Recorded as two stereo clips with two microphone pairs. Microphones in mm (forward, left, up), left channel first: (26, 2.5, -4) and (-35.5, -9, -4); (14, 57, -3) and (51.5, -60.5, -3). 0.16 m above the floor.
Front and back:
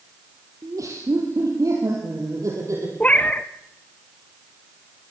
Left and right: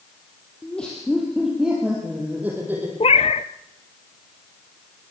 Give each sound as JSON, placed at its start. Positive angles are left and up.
{"t": 0.6, "sound": "laughter", "azimuth_deg": -175, "distance_m": 3.5}
{"t": 3.0, "sound": "a cat meowing", "azimuth_deg": 75, "distance_m": 0.7}